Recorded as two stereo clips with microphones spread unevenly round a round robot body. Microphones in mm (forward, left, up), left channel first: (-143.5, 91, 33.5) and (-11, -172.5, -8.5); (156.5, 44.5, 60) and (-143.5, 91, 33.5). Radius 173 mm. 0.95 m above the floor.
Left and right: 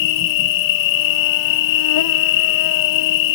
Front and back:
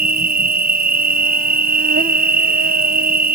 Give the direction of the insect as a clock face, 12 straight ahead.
8 o'clock.